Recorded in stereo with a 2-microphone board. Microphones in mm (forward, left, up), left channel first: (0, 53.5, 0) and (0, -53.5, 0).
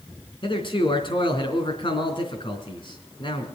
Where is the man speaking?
50° left (ahead or behind), 3.5 m.